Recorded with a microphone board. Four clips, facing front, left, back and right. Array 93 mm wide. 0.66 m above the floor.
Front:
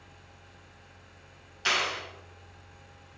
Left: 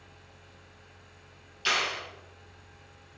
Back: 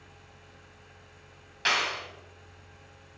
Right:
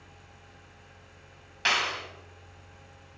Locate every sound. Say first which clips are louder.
1.6 s a clap: right 1 dB, back 1 dB; 115° right, 3 m